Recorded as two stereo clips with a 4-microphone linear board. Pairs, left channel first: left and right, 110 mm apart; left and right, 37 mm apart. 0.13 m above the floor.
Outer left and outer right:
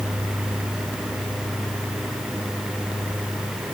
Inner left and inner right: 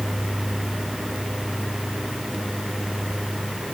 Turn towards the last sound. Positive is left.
No sound to turn to.